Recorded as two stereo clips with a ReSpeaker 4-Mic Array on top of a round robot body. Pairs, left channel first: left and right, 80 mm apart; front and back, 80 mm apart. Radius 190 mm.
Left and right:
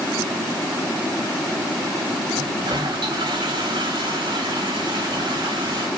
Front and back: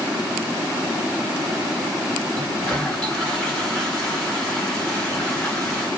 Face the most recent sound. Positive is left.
turn(degrees=-80)